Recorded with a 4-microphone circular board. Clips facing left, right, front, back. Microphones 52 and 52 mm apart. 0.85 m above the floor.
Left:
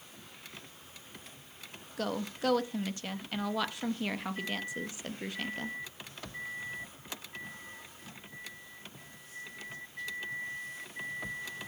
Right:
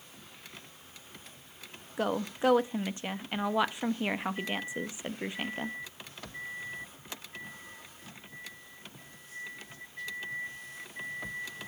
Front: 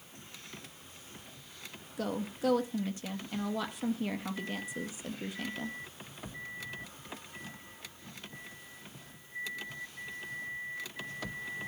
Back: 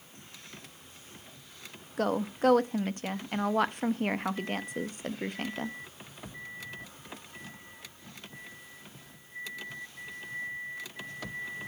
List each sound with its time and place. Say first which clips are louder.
2.0 s a woman speaking: right 4 dB, back 6 dB; 155° right, 0.7 m